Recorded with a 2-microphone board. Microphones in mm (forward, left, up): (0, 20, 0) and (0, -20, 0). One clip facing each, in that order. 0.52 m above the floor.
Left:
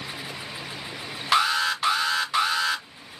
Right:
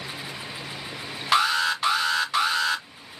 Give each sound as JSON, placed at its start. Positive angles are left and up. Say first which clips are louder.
{"t": 1.3, "sound": "an alarm", "louder": "even", "side_deg": 5, "distance_m": 0.9}